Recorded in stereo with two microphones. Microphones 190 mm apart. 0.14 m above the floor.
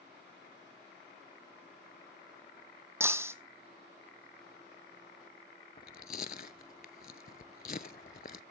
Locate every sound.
3.0 s breaking glass: 15° right (ahead or behind), 1.0 m
5.8 s chewing: 50° left (ahead or behind), 0.5 m